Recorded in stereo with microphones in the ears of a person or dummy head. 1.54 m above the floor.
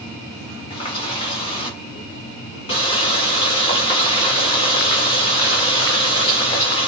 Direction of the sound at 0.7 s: 35° left (ahead or behind).